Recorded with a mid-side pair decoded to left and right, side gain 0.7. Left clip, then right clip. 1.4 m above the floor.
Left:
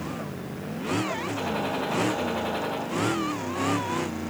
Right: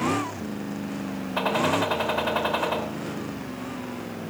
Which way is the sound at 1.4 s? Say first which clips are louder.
Right 10 dB; 50° right.